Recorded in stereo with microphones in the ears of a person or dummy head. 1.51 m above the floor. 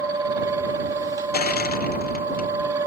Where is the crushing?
50° left (ahead or behind).